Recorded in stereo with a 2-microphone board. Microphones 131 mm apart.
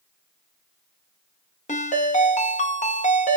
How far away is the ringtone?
About 0.7 m.